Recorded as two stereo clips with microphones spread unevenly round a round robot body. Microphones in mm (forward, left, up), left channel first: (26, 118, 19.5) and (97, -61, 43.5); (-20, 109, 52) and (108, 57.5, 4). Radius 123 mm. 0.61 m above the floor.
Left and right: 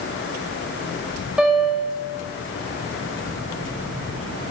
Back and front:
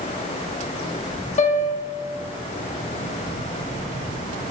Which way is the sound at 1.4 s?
160° right.